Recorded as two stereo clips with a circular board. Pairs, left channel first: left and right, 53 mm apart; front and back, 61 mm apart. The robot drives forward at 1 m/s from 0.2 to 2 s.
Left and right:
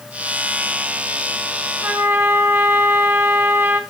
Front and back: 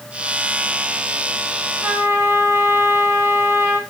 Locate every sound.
1.8 s a trumpet: 130° right, 1.6 m; by 3.8 s 135° right, 1.7 m